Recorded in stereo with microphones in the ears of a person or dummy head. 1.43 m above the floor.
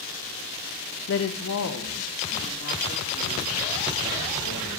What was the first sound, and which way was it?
A woman speaking, 65° left (ahead or behind).